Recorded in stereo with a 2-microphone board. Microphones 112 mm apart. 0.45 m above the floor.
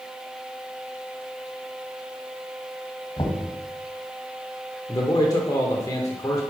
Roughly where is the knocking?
Left.